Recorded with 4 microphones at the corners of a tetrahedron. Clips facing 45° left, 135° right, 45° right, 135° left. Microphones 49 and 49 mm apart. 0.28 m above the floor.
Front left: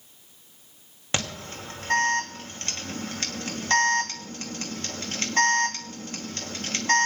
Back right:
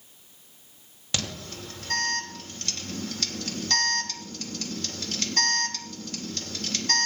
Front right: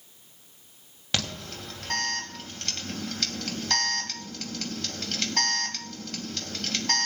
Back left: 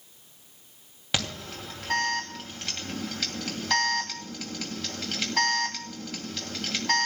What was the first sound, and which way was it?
An alarm, 55° left.